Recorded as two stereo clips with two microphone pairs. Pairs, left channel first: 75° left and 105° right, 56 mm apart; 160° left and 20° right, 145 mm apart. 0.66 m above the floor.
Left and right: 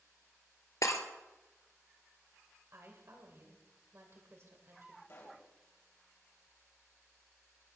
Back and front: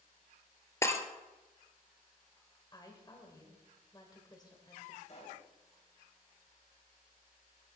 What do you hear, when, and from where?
0.8 s breaking glass: 90° left, 1.7 m
2.7 s a woman speaking: 140° right, 3 m
5.1 s a pop: 115° left, 3.5 m